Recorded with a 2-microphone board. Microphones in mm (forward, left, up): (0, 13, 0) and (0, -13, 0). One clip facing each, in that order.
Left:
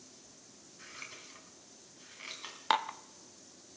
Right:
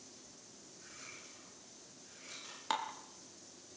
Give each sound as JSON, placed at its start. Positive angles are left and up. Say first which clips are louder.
{"t": 0.8, "sound": "scissors", "louder": "left 5 dB", "side_deg": 75, "distance_m": 3.5}
{"t": 2.7, "sound": "dishes clattering", "louder": "left 7 dB", "side_deg": 30, "distance_m": 0.6}